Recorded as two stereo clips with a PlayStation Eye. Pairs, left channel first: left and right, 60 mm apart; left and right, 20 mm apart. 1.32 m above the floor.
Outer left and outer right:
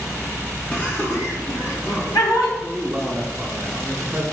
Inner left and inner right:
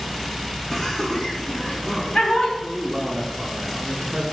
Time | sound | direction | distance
0.7 | laughter | 20° left (ahead or behind) | 1.4 m
2.6 | a man speaking | 15° right (ahead or behind) | 0.7 m